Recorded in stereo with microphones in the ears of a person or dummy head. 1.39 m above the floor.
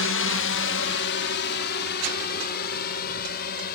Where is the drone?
65° left (ahead or behind); by 3.8 s 50° left (ahead or behind).